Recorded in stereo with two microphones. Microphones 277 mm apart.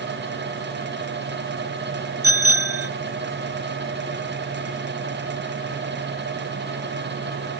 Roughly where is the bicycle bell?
Right.